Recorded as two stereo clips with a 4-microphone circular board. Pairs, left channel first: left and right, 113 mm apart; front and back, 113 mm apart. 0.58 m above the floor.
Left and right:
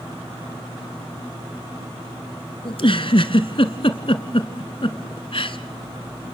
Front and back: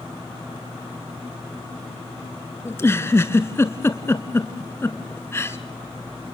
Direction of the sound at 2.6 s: 65° left.